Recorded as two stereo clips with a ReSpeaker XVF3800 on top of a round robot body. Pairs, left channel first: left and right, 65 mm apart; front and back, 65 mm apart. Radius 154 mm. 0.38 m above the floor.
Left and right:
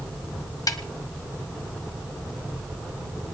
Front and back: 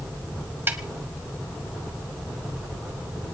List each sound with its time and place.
0.7 s a snare drum: 120° left, 1.3 m